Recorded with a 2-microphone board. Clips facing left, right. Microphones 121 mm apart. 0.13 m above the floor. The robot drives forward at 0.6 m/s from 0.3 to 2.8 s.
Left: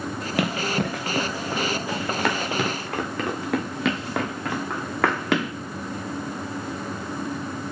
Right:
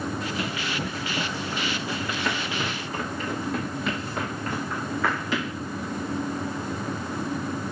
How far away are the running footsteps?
About 1.4 m.